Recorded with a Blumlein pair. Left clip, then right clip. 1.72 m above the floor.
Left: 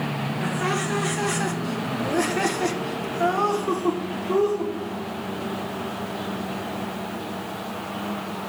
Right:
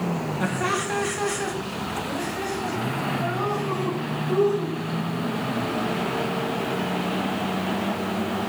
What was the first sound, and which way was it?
Laughter, 10° right.